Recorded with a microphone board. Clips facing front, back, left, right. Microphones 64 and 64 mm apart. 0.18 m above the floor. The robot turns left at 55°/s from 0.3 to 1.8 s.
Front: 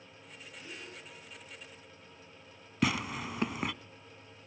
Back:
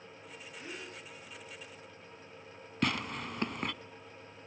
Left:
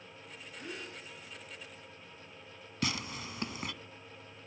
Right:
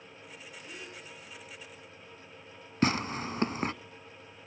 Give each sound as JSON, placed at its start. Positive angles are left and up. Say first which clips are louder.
{"t": 0.5, "sound": "a gasp", "louder": "back 2 dB, left 3 dB", "azimuth_deg": 120, "distance_m": 9.0}
{"t": 2.8, "sound": "tearing paper", "louder": "front 2 dB, right 8 dB", "azimuth_deg": -85, "distance_m": 0.5}